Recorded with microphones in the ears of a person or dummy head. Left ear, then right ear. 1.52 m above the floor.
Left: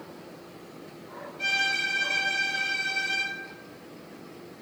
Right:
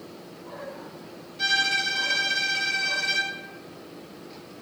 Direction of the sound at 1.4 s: 30° right (ahead or behind).